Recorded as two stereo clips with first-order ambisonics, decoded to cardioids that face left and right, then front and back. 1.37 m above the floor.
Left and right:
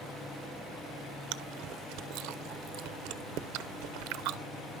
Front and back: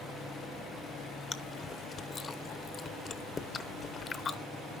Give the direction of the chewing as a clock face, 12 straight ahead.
2 o'clock.